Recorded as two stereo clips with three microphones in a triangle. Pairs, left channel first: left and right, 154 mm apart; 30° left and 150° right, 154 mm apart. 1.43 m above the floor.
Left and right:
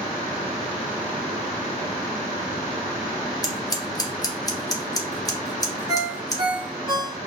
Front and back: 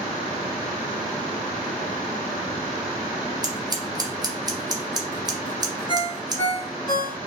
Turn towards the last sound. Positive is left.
turn(degrees=-30)